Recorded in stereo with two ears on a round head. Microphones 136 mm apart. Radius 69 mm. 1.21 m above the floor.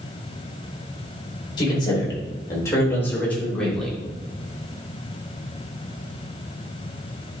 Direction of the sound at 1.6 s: 30° left (ahead or behind).